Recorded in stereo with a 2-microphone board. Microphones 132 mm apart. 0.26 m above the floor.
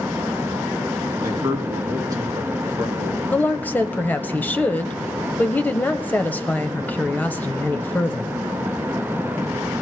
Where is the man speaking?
25° right (ahead or behind), 3.5 m.